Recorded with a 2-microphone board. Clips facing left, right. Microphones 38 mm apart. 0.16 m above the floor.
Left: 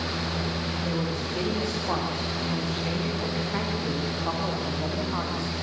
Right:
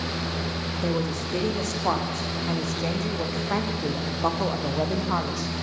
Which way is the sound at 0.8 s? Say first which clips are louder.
Right 5 dB; 65° right (ahead or behind).